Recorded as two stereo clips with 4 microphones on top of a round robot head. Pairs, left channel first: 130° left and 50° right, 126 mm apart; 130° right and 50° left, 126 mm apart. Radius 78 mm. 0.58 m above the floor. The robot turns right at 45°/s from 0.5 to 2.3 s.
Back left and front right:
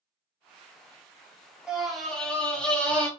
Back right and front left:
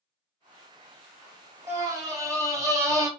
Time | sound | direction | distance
1.7 | a scream | 25° left | 1.3 m